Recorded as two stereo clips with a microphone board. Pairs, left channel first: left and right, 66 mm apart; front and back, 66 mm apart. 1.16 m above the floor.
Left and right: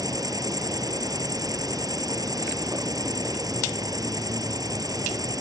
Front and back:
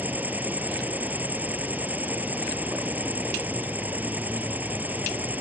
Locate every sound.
0.0 s an insect: 115° right